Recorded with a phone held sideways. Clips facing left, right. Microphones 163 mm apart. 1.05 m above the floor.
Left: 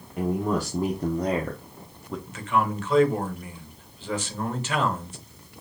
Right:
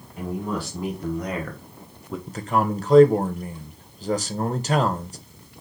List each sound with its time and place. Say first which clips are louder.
0.2 s a man speaking: left 3 dB; 50° left (ahead or behind), 1.3 m; by 2.2 s 5° right (ahead or behind), 0.7 m
2.3 s a man speaking: right 2 dB; 40° right (ahead or behind), 0.7 m